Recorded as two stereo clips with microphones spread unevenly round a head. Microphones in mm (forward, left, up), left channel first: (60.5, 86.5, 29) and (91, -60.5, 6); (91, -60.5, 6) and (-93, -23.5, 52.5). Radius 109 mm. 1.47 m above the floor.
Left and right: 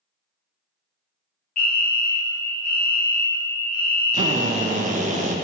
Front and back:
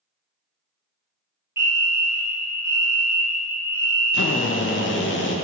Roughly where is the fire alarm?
Left.